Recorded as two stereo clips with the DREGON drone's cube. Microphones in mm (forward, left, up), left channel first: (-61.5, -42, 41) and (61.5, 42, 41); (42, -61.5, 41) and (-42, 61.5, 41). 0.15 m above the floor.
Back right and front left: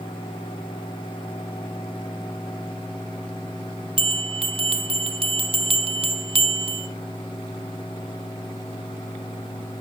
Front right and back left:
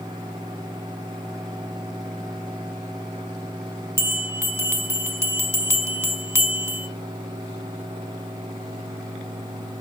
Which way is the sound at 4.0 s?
60° left.